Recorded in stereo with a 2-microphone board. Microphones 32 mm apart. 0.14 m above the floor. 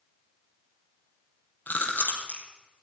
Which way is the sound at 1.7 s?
75° left (ahead or behind).